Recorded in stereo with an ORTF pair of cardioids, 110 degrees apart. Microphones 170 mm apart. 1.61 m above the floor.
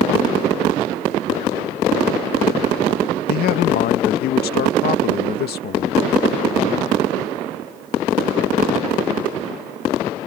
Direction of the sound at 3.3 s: 70° left.